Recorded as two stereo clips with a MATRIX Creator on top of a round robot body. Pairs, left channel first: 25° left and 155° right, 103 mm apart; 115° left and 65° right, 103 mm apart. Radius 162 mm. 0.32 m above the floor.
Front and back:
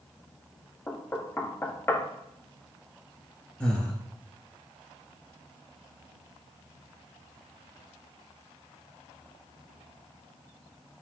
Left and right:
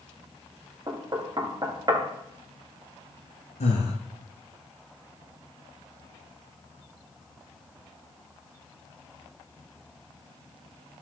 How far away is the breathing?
About 1.4 m.